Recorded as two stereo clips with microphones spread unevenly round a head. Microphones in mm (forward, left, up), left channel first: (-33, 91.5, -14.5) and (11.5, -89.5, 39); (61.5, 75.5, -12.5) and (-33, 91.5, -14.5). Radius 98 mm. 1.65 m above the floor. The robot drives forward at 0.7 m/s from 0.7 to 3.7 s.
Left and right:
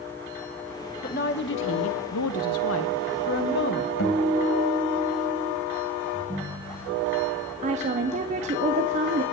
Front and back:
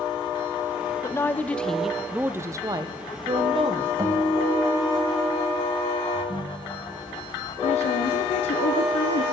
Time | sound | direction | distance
1.0 | a woman speaking | 55° left | 1.2 m
4.0 | a guitar | 125° left | 2.5 m
6.1 | a ringtone | 145° right | 1.4 m
7.6 | a woman speaking | 25° right | 0.9 m